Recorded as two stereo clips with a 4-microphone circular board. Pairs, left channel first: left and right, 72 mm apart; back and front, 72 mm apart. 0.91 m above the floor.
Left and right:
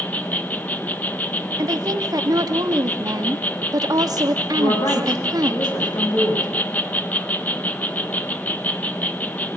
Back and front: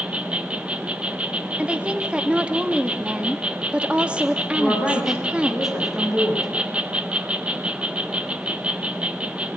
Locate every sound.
0.0 s an insect: 50° left, 1.0 m
1.6 s a woman speaking: 75° right, 1.7 m
4.5 s a woman speaking: 85° left, 5.5 m